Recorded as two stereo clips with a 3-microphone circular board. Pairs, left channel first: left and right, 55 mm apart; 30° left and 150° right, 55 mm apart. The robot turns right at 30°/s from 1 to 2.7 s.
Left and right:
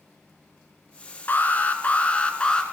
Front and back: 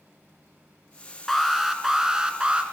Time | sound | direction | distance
1.3 | an alarm | 115° left | 1.7 m